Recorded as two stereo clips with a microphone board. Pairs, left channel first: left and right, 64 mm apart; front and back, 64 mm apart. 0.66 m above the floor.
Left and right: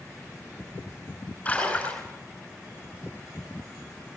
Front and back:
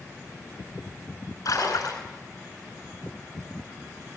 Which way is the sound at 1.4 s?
20° left.